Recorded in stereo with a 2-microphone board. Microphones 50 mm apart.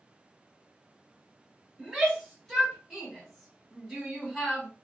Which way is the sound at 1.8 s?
5° left (ahead or behind).